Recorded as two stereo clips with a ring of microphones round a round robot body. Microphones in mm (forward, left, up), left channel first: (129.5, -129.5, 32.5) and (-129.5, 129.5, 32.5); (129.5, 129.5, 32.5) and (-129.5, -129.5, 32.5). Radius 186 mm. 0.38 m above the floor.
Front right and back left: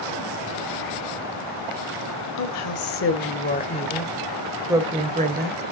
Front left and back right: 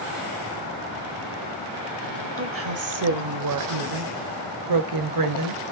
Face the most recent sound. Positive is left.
turn(degrees=-165)